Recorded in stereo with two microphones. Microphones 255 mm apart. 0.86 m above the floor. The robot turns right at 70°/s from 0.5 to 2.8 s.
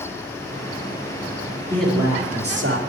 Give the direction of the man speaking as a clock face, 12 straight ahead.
6 o'clock.